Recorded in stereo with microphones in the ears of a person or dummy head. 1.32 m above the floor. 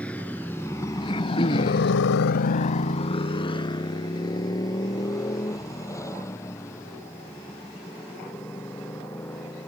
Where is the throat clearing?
30° left (ahead or behind).